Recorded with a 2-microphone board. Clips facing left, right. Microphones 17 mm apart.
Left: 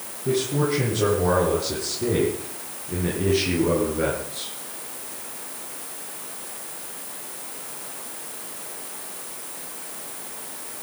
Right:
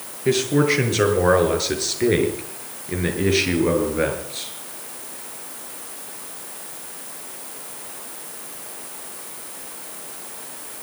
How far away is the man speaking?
About 7 m.